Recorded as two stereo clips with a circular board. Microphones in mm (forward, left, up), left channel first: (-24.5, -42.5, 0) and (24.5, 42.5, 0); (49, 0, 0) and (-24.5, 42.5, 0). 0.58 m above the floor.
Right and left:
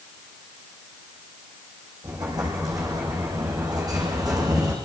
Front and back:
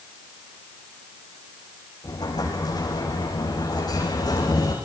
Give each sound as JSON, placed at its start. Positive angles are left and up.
{"t": 2.0, "sound": "an explosion", "azimuth_deg": 10, "distance_m": 7.5}